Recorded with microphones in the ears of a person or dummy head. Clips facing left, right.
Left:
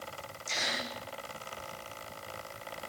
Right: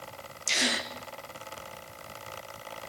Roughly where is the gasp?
Right.